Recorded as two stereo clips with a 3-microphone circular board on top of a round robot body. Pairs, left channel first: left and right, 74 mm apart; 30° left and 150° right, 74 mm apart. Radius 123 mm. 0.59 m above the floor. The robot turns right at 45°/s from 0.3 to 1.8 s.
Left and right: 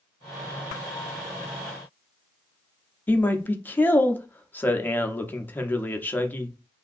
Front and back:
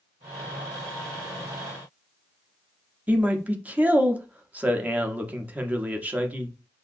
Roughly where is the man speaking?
Behind left.